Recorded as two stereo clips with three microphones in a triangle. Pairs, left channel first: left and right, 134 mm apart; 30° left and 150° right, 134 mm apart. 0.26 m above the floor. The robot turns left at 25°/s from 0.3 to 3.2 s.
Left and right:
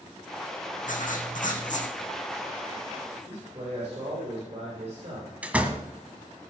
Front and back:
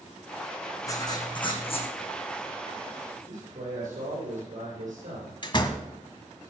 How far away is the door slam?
About 1.3 m.